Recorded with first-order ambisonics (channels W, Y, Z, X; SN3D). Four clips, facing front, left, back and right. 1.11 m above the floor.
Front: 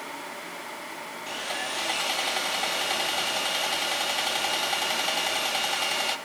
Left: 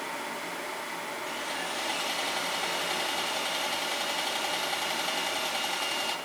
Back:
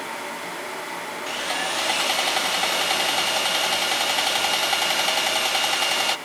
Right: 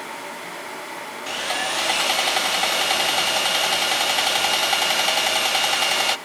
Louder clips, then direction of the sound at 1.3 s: Right 12 dB, back 5 dB; 115° right.